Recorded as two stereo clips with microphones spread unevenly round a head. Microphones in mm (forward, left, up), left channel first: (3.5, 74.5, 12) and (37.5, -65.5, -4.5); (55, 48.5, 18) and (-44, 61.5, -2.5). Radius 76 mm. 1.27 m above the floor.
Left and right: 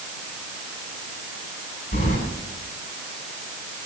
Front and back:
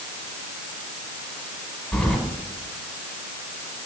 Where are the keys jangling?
80° left, 4 m.